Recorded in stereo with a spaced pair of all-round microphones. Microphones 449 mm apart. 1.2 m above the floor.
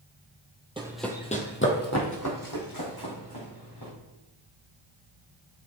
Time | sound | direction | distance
0.8 | running footsteps | 10° right (ahead or behind) | 1.4 m